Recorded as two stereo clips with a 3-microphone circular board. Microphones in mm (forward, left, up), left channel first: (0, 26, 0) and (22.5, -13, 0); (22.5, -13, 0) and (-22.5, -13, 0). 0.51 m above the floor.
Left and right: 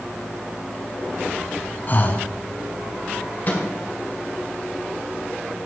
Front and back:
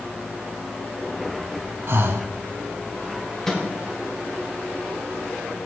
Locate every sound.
1.9 s breathing: 165° left, 0.8 m
3.5 s a microwave: 75° left, 2 m